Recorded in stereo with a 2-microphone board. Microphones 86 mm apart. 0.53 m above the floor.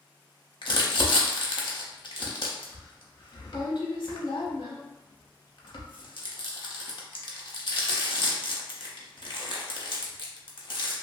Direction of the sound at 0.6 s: 70° left (ahead or behind).